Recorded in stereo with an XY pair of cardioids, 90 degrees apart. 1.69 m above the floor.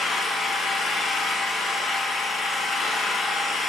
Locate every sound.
0.0 s an engine running: 60° left, 2 m